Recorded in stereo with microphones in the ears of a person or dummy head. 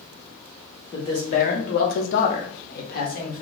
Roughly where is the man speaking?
Left.